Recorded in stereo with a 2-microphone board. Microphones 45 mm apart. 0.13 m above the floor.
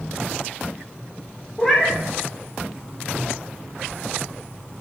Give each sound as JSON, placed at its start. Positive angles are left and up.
{"t": 1.6, "sound": "a cat meowing", "side_deg": 5, "distance_m": 2.5}